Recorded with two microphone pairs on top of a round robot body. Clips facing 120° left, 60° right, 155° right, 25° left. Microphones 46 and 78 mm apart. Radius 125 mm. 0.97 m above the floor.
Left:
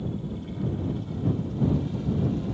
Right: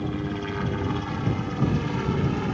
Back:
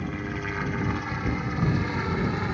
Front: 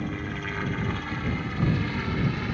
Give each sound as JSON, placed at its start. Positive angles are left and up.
{"t": 0.0, "sound": "a helicopter", "azimuth_deg": -70}